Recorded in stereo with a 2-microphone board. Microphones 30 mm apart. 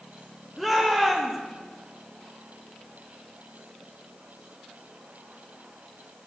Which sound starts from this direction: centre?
A shout, at 0.6 s.